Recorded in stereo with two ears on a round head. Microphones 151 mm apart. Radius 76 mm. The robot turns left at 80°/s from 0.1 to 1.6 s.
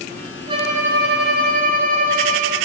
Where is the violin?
30° right, 1.8 m; by 2.5 s 120° right, 1.8 m.